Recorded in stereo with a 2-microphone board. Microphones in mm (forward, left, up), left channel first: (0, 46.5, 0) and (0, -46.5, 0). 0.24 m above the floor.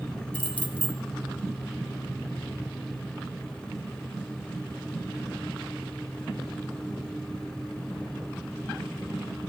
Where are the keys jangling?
15° left (ahead or behind), 0.7 m.